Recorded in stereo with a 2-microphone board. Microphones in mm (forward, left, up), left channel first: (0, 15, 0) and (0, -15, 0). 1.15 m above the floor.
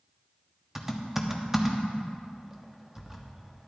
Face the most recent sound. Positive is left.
turn(degrees=-15)  # may be behind; listen again after turning